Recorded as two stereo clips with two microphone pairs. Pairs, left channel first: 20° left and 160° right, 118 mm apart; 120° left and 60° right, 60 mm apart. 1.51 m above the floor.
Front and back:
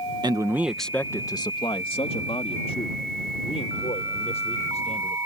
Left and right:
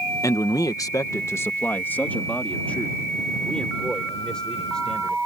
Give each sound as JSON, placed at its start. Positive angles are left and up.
{"t": 0.2, "sound": "a man speaking", "azimuth_deg": 145}